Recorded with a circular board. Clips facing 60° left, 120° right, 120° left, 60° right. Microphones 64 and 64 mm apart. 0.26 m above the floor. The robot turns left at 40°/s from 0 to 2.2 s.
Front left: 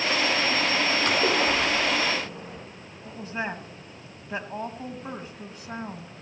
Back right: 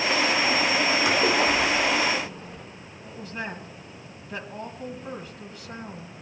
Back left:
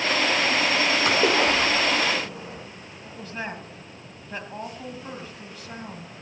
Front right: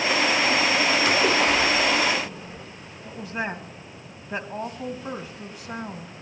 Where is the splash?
160° left, 4.5 m; by 2.6 s 115° left, 4.5 m.